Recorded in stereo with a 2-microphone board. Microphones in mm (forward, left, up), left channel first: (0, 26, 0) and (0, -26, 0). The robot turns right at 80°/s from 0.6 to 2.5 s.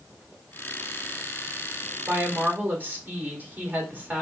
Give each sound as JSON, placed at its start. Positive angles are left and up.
{"t": 2.1, "sound": "a woman speaking", "azimuth_deg": -95, "distance_m": 1.5}